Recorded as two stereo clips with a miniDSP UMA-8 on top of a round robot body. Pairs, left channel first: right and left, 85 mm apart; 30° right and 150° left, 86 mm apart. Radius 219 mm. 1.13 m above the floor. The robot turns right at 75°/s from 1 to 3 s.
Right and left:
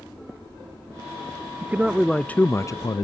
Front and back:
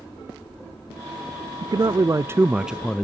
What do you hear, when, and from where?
1.6 s a man speaking: 150° left, 0.5 m; by 3.0 s 105° right, 0.5 m